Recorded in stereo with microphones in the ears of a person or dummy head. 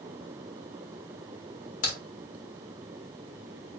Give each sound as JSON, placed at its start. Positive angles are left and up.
{"t": 1.8, "sound": "a crack", "side_deg": 40, "distance_m": 1.4}